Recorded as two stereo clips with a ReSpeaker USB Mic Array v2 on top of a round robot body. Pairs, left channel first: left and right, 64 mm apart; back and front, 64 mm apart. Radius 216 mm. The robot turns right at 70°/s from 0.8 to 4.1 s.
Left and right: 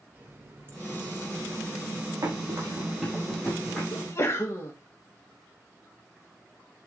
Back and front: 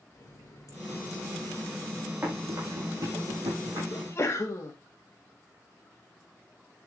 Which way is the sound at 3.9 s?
115° left.